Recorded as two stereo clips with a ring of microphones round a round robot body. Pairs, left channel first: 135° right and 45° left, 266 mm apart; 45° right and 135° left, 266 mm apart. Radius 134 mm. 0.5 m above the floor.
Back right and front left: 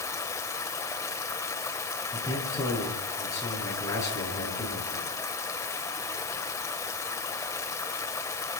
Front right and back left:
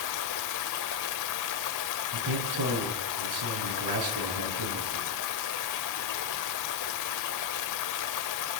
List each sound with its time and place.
0.0 s running water: 55° right, 1.2 m
2.1 s a man speaking: 145° left, 7.5 m